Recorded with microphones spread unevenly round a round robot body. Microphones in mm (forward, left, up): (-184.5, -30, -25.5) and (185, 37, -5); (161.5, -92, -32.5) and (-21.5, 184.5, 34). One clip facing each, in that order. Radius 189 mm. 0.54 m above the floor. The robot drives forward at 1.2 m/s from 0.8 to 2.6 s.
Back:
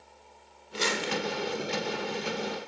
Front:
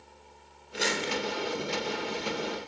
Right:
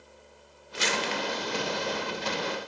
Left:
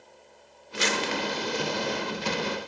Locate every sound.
0.7 s crumpling: 110° left, 1.5 m; by 1.2 s 130° left, 1.7 m